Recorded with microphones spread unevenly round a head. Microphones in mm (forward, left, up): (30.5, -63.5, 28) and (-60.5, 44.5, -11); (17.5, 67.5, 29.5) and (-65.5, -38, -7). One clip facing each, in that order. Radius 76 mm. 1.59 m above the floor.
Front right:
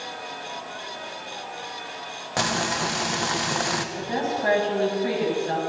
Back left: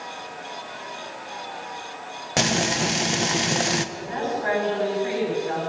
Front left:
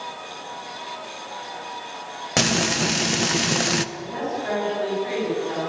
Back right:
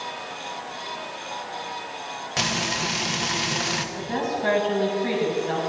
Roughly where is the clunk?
I don't hear a clunk.